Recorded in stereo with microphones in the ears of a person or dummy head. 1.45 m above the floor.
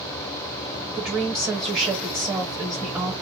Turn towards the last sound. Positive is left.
turn(degrees=-10)  # may be behind; listen again after turning